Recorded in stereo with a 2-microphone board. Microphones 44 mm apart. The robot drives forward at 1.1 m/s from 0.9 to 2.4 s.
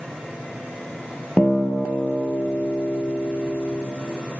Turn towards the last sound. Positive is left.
turn(degrees=15)  # may be behind; listen again after turning